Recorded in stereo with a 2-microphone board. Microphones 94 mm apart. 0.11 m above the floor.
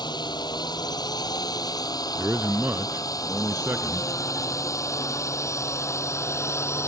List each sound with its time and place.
0.0 s a drone: 45° left (ahead or behind); by 6.9 s 25° left (ahead or behind)
2.2 s a man speaking: 20° right (ahead or behind)